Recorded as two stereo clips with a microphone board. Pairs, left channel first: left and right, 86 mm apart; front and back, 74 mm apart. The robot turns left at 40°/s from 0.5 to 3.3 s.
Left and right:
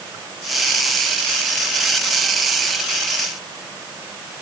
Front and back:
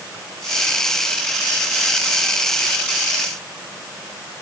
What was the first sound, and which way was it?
Only background noise.